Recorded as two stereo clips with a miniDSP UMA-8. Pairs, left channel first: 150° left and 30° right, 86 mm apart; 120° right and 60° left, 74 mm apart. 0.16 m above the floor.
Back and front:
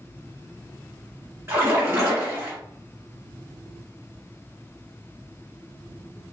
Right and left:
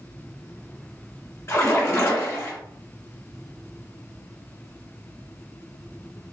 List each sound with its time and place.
1.5 s a splash: 80° right, 1.6 m